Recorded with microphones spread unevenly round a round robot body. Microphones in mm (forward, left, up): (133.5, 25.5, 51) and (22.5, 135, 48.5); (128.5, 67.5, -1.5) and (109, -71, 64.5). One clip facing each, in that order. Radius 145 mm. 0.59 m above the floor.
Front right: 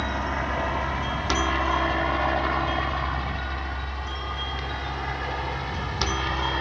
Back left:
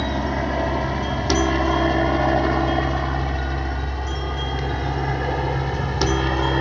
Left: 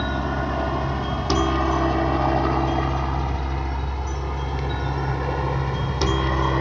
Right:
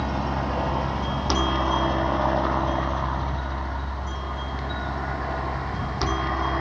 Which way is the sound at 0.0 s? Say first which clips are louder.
Back left 6 dB, left 2 dB; 135° left.